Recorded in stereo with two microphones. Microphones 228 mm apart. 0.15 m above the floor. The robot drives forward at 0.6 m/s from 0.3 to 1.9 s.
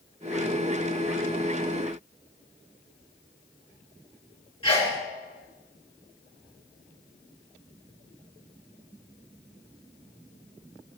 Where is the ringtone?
No ringtone in this recording.